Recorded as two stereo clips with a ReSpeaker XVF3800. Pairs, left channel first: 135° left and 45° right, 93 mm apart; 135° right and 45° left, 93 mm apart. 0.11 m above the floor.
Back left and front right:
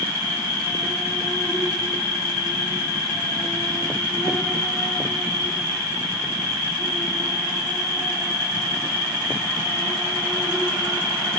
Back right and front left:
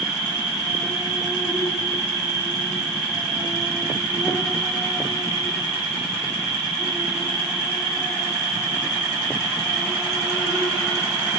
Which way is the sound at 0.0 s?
125° left.